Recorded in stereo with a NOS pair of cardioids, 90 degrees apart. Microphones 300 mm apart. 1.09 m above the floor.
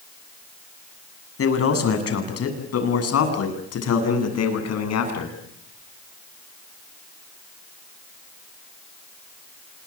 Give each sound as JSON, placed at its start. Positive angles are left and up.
{"t": 1.4, "sound": "a man speaking", "azimuth_deg": 50, "distance_m": 8.0}